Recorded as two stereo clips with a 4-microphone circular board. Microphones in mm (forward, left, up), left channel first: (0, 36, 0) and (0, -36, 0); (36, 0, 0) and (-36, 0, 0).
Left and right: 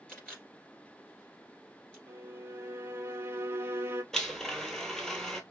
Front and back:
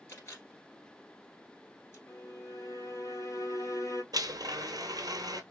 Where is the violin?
35° right, 0.6 m.